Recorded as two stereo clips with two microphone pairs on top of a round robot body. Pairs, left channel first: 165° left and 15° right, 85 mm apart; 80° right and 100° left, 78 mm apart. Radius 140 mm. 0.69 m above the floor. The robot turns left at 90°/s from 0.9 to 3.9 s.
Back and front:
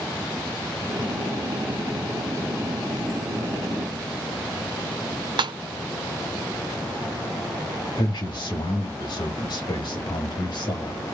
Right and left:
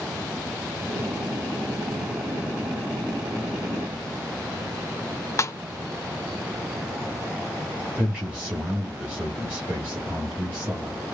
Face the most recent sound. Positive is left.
turn(degrees=175)